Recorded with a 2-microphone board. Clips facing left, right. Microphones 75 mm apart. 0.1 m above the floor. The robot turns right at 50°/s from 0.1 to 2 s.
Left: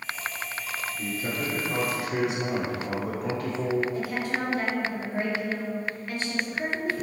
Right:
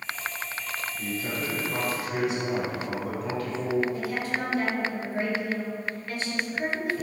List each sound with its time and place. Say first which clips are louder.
1.0 s a man speaking: left 1 dB; 5° left (ahead or behind), 1.1 m; by 3.8 s 25° left (ahead or behind), 1.1 m
3.9 s a woman speaking: left 1 dB; 20° left (ahead or behind), 1.9 m